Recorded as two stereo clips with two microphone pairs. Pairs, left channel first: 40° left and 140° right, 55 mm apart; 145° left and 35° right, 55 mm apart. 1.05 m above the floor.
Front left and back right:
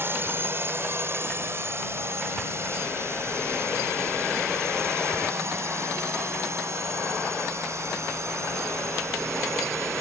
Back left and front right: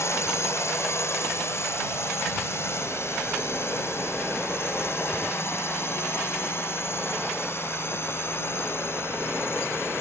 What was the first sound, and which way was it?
A drone, 175° left.